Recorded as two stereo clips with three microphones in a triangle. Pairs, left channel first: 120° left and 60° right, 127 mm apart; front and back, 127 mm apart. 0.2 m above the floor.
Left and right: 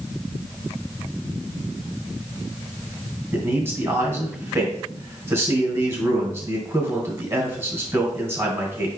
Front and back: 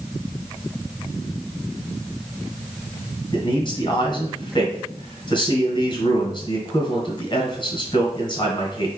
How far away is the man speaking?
About 1.7 m.